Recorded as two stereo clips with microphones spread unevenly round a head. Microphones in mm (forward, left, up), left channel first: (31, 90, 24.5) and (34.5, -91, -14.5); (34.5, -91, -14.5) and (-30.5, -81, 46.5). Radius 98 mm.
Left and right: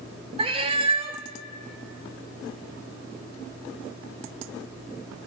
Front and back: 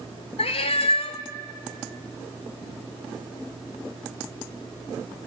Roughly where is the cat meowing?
Ahead right.